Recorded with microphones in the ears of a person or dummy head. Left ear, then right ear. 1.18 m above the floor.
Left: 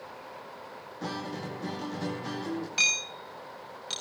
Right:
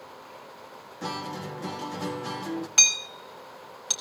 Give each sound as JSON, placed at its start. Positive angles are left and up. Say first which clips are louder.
{"t": 1.0, "sound": "a guitar", "louder": "right 3 dB", "side_deg": -25, "distance_m": 2.0}
{"t": 2.8, "sound": "hammering", "louder": "right 4 dB", "side_deg": -40, "distance_m": 5.0}